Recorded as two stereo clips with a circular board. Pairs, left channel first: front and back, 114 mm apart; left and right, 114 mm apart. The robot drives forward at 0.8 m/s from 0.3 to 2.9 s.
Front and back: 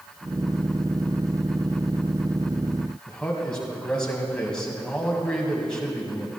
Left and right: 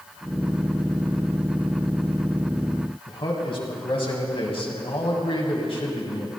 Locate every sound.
3.1 s a man speaking: 80° left, 1.9 m